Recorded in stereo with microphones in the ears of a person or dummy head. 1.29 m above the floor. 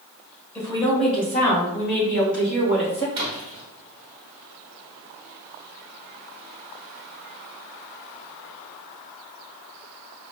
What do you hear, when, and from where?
0.6 s a woman speaking: 20° left (ahead or behind), 1.5 m; by 3.0 s 75° left (ahead or behind), 2.5 m
3.1 s a splash: 15° right (ahead or behind), 0.9 m